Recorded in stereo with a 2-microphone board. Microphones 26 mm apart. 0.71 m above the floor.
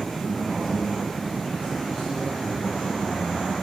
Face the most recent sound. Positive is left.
turn(degrees=55)  # may be behind; listen again after turning